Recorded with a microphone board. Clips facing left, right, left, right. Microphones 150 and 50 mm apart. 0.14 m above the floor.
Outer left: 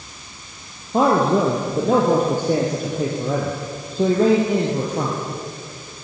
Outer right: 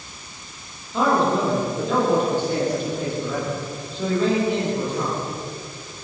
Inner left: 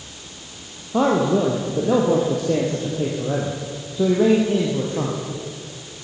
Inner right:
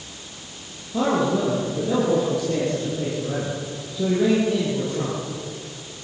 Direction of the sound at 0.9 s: 45° left (ahead or behind).